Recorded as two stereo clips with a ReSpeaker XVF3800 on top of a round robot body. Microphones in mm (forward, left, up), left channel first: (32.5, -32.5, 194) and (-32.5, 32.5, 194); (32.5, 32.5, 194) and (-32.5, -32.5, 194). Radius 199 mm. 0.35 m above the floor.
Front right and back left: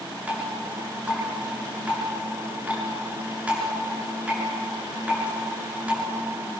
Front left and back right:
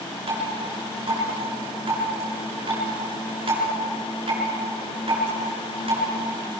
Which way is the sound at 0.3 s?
150° right.